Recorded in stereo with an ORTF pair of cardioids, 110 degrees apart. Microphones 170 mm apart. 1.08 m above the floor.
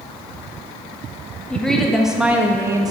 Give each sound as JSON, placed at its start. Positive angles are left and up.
{"t": 1.5, "sound": "a woman speaking", "azimuth_deg": 5, "distance_m": 2.0}